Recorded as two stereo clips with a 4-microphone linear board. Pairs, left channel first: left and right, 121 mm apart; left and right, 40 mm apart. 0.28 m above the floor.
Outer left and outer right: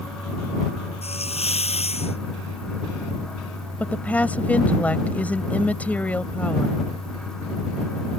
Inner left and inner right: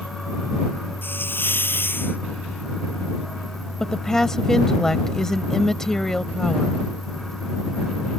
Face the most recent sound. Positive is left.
turn(degrees=15)  # may be behind; listen again after turning